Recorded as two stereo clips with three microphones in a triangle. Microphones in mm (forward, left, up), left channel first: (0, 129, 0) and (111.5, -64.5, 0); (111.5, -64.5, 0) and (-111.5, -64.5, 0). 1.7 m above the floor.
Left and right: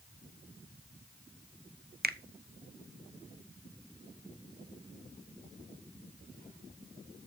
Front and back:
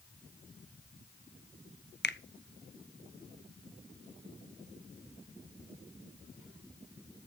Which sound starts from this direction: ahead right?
A finger snap, at 2.0 s.